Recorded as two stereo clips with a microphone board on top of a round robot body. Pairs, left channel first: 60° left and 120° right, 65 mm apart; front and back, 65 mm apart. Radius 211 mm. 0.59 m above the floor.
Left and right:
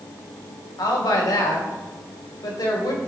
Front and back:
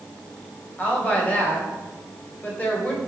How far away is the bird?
No bird in this recording.